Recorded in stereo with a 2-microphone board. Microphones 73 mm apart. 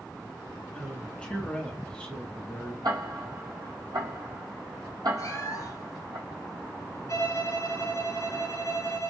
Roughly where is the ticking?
Right.